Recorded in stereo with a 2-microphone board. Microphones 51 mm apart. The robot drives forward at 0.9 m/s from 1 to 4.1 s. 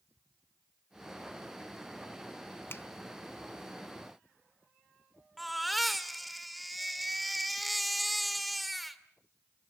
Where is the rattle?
I don't hear a rattle.